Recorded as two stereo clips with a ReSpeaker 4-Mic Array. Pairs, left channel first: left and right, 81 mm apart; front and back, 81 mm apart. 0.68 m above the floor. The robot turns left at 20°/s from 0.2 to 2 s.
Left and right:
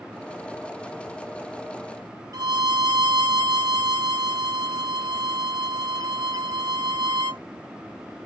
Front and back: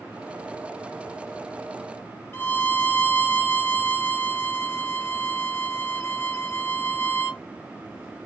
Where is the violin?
60° right, 0.6 m.